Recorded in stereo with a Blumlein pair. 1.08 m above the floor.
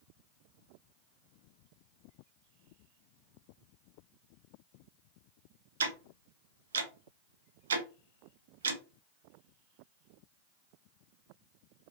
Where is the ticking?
65° right, 0.6 m.